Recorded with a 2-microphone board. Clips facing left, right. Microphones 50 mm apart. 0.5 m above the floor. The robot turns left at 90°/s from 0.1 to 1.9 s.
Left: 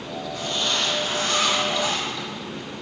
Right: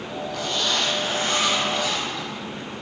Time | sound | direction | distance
0.3 | a zipper | 60° right | 3.5 m